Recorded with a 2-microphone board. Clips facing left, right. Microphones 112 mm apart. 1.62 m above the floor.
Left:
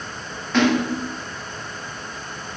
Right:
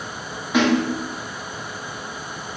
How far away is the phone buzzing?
No phone buzzing in this recording.